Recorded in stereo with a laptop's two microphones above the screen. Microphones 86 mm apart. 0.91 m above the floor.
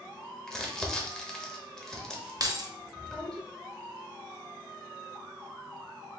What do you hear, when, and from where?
0.5 s crumpling: 5° left (ahead or behind), 0.8 m
2.4 s keys jangling: 45° right (ahead or behind), 0.7 m